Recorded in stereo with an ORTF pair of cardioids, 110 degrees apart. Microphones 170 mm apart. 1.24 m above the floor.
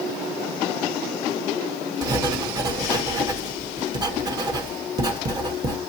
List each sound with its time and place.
2.0 s writing: 25° right, 1.0 m